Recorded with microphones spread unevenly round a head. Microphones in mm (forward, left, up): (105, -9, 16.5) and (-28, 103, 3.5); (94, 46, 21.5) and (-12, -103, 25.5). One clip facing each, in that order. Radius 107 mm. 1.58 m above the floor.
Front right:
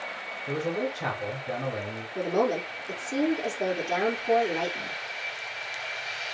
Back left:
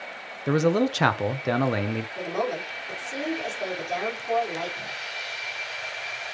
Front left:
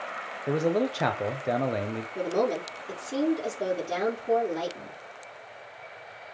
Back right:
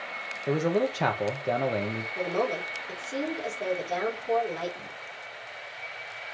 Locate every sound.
0.5 s a man speaking: 140° left, 1.0 m
2.1 s a woman speaking: 10° left, 4.5 m